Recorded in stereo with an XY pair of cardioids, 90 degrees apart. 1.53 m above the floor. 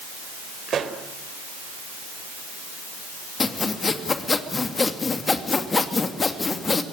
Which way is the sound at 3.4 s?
40° left.